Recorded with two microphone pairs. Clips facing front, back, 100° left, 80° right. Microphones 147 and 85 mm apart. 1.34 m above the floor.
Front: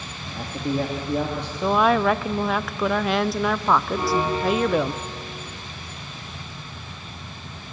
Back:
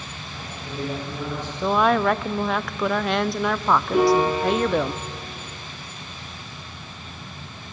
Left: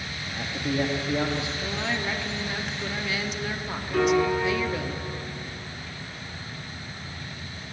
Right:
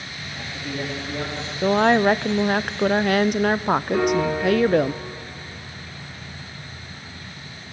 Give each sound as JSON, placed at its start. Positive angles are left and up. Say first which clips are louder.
{"t": 0.3, "sound": "a man speaking", "louder": "front 11 dB, left 3 dB", "azimuth_deg": 25, "distance_m": 2.5}
{"t": 1.6, "sound": "a woman speaking", "louder": "even, right 13 dB", "azimuth_deg": -90, "distance_m": 0.5}
{"t": 3.9, "sound": "a piano", "louder": "back 5 dB, left 4 dB", "azimuth_deg": -160, "distance_m": 6.0}